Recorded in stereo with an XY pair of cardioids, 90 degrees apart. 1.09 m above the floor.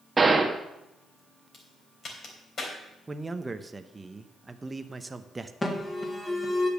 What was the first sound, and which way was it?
A gunshot, 30° right.